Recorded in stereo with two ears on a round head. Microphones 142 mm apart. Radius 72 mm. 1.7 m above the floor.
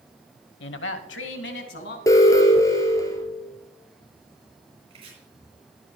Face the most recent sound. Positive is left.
turn(degrees=-40)  # may be behind; listen again after turning